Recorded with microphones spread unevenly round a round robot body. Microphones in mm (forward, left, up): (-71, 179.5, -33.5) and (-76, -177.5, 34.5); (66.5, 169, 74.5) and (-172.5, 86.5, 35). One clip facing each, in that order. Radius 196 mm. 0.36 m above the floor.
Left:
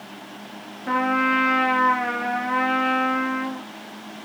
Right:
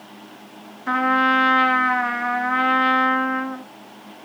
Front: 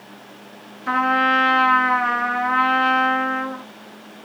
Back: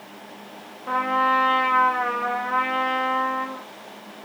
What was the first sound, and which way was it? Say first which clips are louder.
A trumpet: right 1 dB, front 4 dB; 20° right.